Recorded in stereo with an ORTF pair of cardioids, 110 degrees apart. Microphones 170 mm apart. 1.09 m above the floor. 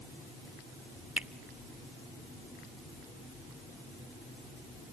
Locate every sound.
1.2 s a finger snap: 10° right, 0.8 m